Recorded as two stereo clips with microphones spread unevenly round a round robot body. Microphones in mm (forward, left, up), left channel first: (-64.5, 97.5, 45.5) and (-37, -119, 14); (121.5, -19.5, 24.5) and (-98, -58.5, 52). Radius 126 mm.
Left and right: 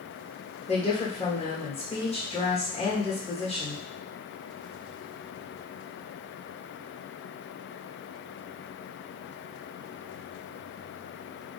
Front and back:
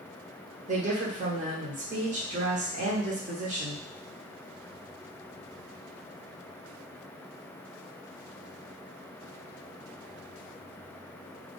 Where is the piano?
I don't hear a piano.